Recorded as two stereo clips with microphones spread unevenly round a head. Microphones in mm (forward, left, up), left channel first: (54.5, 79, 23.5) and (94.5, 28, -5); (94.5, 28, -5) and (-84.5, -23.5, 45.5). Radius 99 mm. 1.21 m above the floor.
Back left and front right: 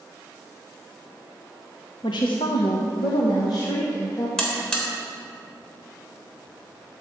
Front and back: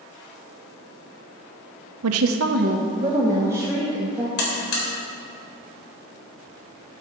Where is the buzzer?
55° left, 3.5 m.